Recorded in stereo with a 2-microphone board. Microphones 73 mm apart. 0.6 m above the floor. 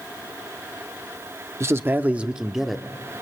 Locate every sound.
1.6 s a man speaking: 40° right (ahead or behind), 0.9 m; by 3.2 s 10° left (ahead or behind), 1.4 m